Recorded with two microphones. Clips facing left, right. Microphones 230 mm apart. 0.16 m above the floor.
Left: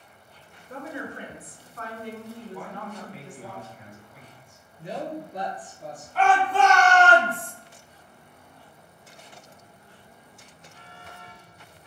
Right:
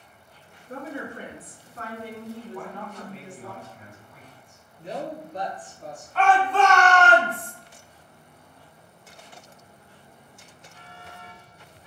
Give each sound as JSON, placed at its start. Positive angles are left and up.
{"t": 0.7, "sound": "a woman speaking", "side_deg": -45, "distance_m": 2.0}
{"t": 2.5, "sound": "a man speaking", "side_deg": 10, "distance_m": 1.4}
{"t": 4.8, "sound": "a woman speaking", "side_deg": 10, "distance_m": 1.6}
{"t": 6.2, "sound": "a shout", "side_deg": 10, "distance_m": 1.2}